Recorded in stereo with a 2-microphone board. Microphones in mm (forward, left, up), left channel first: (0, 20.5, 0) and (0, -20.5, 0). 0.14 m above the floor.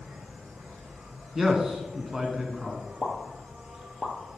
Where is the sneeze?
No sneeze in this recording.